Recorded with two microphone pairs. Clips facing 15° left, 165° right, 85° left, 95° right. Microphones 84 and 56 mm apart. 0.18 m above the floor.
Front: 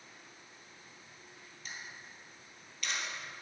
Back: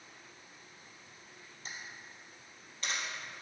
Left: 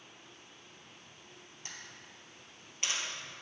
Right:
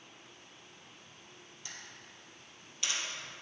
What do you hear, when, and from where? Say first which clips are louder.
1.6 s a camera shutter: even, left 1 dB; 140° left, 2.5 m